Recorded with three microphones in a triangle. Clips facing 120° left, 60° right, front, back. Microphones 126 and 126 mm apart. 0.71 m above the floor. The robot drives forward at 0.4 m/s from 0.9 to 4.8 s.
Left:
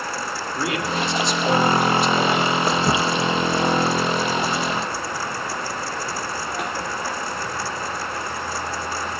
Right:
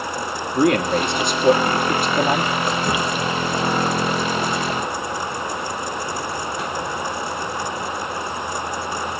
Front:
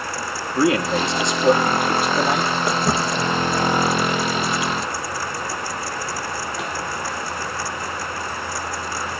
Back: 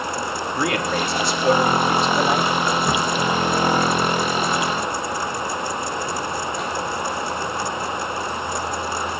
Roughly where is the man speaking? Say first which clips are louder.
Right 8 dB, front 5 dB; ahead right.